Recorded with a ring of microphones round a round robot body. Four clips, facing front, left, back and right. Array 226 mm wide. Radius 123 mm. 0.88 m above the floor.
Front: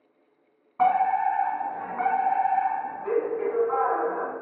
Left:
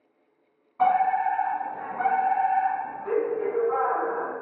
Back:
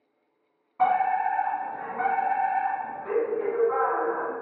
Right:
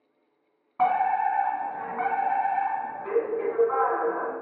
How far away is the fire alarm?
About 1.5 m.